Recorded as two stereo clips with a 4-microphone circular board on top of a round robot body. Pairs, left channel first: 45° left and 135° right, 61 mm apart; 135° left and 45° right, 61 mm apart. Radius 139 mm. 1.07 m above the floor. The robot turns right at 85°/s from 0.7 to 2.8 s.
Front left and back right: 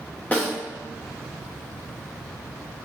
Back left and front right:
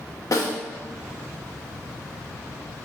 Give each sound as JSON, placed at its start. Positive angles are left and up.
{"t": 0.3, "sound": "a snare drum", "azimuth_deg": 110, "distance_m": 3.0}